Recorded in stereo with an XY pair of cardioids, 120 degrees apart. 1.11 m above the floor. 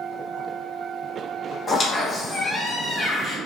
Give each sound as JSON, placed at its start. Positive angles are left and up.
{"t": 1.7, "sound": "a squeak", "azimuth_deg": 20, "distance_m": 0.9}